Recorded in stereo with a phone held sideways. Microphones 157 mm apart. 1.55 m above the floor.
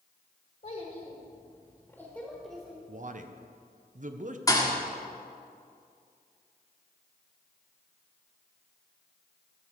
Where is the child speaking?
55° left (ahead or behind), 1.6 m; by 2.8 s 15° right (ahead or behind), 1.5 m.